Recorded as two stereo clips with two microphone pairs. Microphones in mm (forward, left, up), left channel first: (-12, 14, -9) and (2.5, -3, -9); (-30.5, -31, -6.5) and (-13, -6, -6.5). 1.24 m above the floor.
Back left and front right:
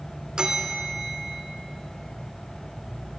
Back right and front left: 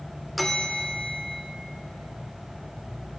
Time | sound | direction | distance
0.4 | a bell | 40° right | 1.0 m